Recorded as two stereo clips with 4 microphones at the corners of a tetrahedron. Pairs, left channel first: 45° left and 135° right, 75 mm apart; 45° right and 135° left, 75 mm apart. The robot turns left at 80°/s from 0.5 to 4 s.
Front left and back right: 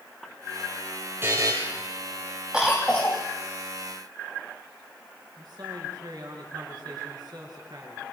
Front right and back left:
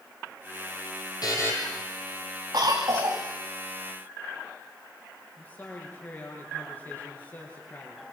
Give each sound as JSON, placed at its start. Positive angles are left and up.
{"t": 1.2, "sound": "a buzzer", "azimuth_deg": -75, "distance_m": 5.5}
{"t": 2.5, "sound": "a cough", "azimuth_deg": 150, "distance_m": 2.5}
{"t": 5.4, "sound": "a man speaking", "azimuth_deg": -110, "distance_m": 7.5}